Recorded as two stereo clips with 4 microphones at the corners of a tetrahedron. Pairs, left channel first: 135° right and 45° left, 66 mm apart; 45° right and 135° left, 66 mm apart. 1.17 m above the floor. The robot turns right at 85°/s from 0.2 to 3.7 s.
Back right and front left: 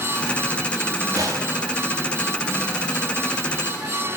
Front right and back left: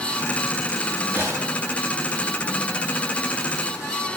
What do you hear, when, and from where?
1.1 s a gunshot: 70° left, 9 m; by 1.6 s 105° left, 9 m